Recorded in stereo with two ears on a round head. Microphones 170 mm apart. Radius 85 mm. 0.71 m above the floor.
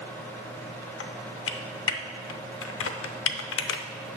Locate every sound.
1.0 s typing on a keyboard: 75° left (ahead or behind), 0.6 m